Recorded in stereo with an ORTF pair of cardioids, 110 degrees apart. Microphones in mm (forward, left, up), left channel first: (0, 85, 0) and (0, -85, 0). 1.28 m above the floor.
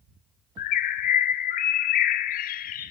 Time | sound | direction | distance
0.6 | a bird | 60° left | 1.0 m